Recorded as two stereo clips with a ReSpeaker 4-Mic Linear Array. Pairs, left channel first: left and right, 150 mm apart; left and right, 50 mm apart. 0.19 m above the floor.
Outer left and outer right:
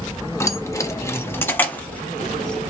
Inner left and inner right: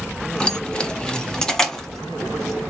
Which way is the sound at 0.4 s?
20° left (ahead or behind).